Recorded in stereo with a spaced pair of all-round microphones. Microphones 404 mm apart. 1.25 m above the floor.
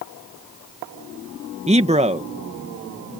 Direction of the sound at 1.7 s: 15° right (ahead or behind).